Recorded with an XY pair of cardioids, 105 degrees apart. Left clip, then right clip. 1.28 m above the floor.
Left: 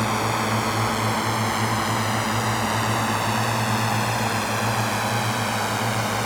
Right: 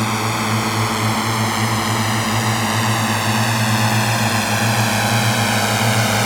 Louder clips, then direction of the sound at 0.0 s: Right 3 dB; 30° right.